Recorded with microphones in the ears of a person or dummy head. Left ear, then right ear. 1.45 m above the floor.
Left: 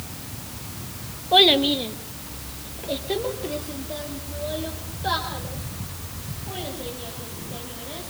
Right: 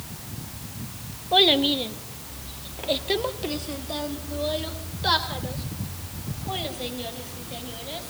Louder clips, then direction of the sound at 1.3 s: Left 3 dB; 5° left (ahead or behind).